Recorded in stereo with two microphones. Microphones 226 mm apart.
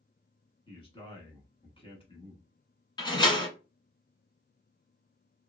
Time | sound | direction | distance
0.7 | a man speaking | 25° left (ahead or behind) | 1.1 m
3.0 | a door slam | 20° left (ahead or behind) | 1.0 m